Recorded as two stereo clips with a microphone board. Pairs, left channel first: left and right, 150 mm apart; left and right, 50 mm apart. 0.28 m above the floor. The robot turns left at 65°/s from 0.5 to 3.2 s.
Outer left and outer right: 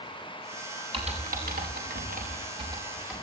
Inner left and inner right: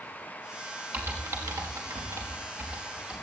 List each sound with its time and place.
0.9 s typing on a keyboard: 40° right (ahead or behind), 5.5 m; by 3.2 s 5° left (ahead or behind), 5.5 m